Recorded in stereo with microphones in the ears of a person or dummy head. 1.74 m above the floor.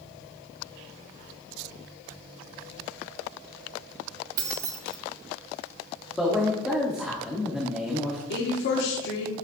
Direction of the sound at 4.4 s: 20° right (ahead or behind).